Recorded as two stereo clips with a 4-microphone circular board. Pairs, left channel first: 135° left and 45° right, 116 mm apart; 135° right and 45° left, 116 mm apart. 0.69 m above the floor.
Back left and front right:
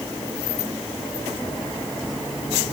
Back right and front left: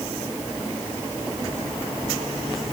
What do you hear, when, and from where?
Only background noise.